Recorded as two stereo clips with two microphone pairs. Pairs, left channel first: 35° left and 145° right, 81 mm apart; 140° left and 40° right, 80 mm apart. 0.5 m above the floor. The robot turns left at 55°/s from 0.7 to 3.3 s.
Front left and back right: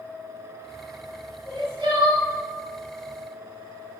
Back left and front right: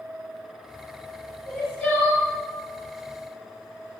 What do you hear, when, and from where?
1.4 s crying: 120° right, 1.5 m; by 2.3 s 165° right, 1.5 m